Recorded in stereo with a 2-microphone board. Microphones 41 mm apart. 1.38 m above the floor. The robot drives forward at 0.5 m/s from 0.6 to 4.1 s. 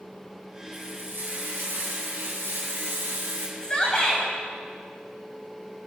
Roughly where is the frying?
Right.